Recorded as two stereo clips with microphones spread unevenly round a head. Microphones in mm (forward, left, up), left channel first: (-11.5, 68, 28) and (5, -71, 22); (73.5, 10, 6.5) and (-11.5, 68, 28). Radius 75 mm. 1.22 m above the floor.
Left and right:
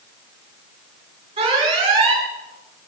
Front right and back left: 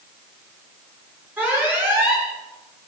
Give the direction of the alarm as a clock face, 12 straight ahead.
5 o'clock.